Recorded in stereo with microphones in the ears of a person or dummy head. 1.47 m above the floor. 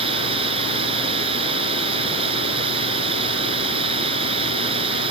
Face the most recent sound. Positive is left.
turn(degrees=-30)  # may be behind; listen again after turning